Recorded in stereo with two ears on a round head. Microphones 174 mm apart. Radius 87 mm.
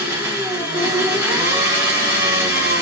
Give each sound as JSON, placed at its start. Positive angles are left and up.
{"t": 0.0, "sound": "an engine running", "side_deg": -15, "distance_m": 1.0}